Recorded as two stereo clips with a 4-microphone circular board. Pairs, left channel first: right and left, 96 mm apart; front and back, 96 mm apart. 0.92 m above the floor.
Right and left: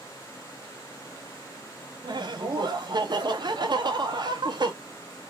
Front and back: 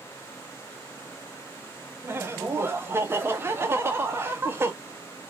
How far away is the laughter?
About 0.7 m.